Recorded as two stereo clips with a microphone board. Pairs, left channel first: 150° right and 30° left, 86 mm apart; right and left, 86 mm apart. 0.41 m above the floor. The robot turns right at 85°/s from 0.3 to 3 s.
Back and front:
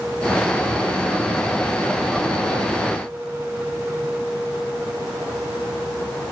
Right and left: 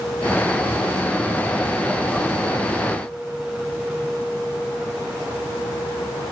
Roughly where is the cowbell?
I don't hear a cowbell.